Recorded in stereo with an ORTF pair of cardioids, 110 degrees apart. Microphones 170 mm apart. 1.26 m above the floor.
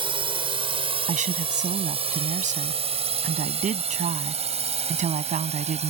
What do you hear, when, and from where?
0.0 s a drone: 30° right; by 5.9 s 40° right
1.1 s a woman speaking: 45° right